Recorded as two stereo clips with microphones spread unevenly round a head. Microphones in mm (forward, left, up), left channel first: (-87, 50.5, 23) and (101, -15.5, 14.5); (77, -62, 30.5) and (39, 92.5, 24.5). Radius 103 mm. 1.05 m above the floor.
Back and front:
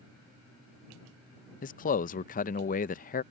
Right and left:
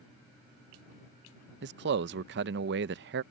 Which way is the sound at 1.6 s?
110° left.